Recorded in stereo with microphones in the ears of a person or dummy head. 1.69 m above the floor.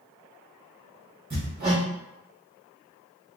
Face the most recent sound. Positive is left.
turn(degrees=-30)  # may be behind; listen again after turning